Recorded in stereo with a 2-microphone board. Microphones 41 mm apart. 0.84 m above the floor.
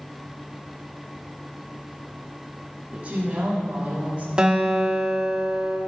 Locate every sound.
2.9 s a woman speaking: 40° right (ahead or behind), 3 m
4.4 s a guitar: 25° right (ahead or behind), 1.4 m